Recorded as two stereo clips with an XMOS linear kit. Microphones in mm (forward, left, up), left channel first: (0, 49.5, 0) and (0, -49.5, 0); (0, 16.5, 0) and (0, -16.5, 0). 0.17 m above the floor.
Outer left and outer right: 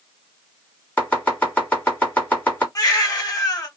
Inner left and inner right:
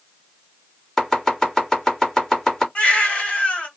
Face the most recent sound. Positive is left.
turn(degrees=35)  # may be behind; listen again after turning